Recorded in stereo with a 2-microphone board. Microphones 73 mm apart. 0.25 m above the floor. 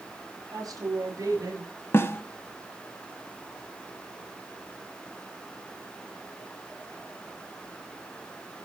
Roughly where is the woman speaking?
Right.